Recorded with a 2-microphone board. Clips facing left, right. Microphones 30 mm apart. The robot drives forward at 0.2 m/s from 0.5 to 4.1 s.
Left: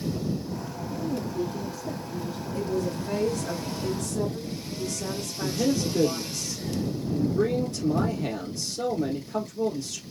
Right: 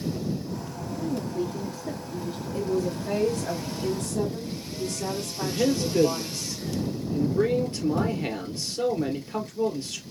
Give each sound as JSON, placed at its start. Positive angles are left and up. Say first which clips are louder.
{"t": 1.0, "sound": "a woman speaking", "louder": "right 1 dB", "side_deg": -50, "distance_m": 1.7}
{"t": 2.5, "sound": "a woman speaking", "louder": "right 2 dB", "side_deg": -60, "distance_m": 3.5}
{"t": 5.4, "sound": "a man speaking", "louder": "right 1 dB", "side_deg": -40, "distance_m": 2.0}